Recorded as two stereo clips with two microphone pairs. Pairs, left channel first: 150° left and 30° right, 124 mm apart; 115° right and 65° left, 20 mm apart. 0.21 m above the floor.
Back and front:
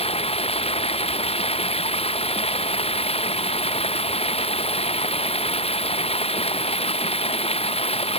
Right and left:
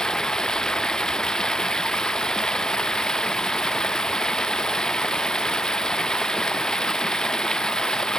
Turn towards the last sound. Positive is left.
turn(degrees=-170)